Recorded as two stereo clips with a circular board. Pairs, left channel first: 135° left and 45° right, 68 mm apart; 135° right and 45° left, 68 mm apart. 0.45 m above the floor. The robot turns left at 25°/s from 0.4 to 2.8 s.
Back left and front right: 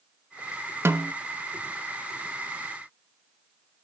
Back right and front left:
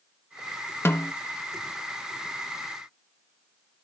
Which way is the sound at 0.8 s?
85° right.